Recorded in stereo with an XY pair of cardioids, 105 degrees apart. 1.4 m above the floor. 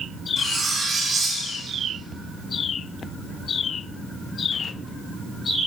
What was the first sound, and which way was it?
Cutlery clinking, 40° right.